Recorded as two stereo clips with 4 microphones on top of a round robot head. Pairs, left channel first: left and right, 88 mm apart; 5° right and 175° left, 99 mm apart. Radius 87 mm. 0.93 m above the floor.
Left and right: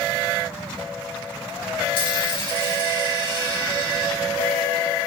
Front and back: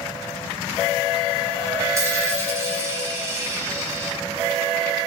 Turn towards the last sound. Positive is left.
turn(degrees=115)